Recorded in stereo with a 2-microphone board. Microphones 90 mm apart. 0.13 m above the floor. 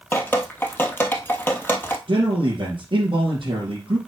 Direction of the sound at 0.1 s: 25° left (ahead or behind).